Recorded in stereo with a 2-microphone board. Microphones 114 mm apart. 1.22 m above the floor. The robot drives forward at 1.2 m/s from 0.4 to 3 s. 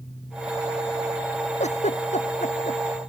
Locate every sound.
1.6 s a giggle: 80° left; by 2.8 s 85° left